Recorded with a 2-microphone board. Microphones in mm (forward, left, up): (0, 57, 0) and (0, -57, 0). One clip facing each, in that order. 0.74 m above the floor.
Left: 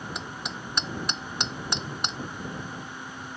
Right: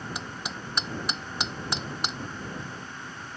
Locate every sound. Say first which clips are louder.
0.1 s hammering: even; centre (ahead or behind)